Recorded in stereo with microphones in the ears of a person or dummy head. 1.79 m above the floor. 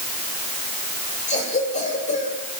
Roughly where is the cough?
Left.